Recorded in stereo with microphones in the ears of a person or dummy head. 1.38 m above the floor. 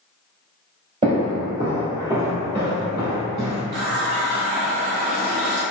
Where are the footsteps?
30° right (ahead or behind), 1.6 m; by 3.6 s centre (ahead or behind), 1.4 m.